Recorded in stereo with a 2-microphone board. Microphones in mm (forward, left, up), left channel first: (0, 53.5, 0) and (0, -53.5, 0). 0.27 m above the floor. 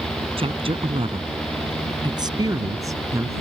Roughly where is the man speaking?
Right.